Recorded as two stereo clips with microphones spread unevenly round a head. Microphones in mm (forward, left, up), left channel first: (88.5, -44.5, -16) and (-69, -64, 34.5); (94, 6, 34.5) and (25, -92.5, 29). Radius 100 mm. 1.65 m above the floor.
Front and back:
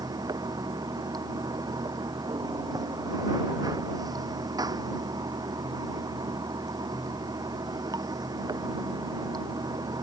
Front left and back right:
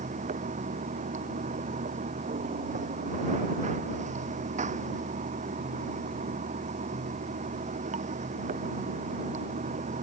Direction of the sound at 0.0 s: 110° right.